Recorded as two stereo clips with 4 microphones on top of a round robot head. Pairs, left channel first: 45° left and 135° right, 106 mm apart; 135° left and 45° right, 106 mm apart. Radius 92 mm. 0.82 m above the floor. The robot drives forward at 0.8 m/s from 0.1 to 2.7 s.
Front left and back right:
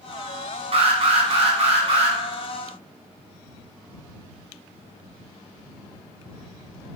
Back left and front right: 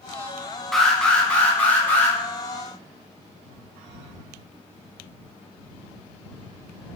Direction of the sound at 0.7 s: 135° right.